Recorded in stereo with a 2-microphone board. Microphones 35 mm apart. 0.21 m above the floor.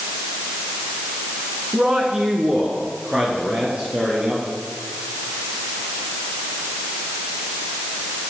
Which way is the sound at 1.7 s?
30° right (ahead or behind).